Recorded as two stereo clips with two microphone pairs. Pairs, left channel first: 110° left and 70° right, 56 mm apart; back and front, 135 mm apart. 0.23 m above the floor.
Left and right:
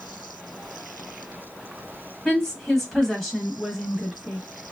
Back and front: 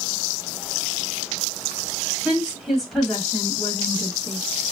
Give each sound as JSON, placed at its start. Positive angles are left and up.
{"t": 2.2, "sound": "a woman speaking", "azimuth_deg": 60, "distance_m": 1.5}